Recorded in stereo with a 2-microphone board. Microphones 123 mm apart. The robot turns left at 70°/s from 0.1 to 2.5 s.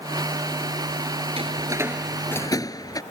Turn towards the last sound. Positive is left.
turn(degrees=30)  # may be behind; listen again after turning